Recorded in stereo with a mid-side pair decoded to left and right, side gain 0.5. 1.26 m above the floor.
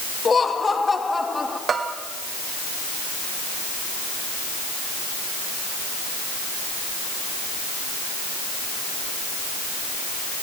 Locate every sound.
0.2 s laughter: 35° left, 2.5 m; by 1.6 s 15° left, 3 m
1.7 s a bell: 45° right, 2.5 m